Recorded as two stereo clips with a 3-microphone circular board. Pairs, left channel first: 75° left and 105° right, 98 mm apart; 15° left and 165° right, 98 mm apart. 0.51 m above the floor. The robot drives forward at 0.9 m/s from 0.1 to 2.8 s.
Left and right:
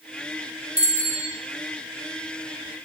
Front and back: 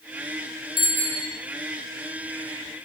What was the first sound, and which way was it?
A bicycle bell, straight behind.